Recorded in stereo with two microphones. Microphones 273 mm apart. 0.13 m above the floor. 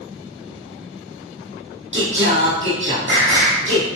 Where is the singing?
45° right (ahead or behind), 2.5 m.